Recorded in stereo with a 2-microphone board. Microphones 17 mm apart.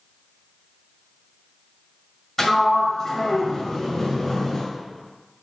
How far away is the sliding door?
About 1.7 m.